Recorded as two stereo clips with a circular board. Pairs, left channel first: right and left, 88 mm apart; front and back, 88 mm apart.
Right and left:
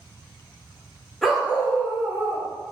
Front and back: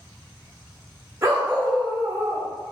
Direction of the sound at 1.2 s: Straight behind.